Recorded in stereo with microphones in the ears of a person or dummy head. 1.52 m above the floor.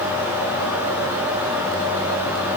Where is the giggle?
I don't hear a giggle.